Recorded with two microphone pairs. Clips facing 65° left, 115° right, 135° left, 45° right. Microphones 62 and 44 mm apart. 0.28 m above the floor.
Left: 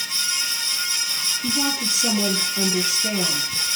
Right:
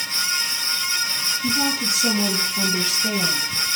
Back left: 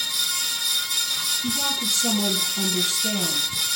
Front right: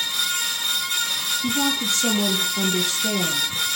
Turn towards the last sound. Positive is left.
turn(degrees=0)